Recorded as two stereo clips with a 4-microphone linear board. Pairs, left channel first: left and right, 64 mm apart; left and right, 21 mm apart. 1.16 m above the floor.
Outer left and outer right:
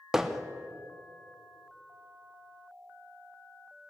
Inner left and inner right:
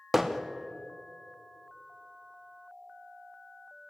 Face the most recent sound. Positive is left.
turn(degrees=-5)  # may be behind; listen again after turning